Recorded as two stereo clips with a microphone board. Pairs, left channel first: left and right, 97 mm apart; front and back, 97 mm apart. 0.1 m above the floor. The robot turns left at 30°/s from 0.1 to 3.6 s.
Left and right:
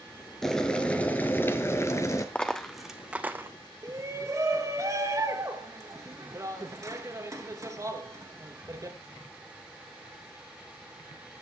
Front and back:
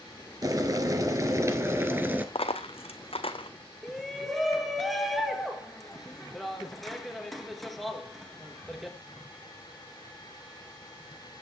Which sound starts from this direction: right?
A shout, at 3.8 s.